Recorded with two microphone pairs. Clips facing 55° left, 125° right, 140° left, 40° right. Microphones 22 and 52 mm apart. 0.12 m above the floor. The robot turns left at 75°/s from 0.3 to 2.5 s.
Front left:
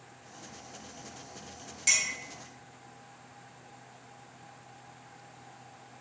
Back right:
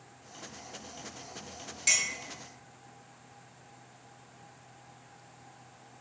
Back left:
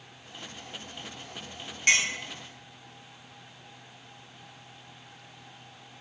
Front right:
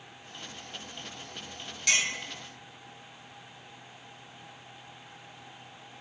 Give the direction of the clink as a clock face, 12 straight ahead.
7 o'clock.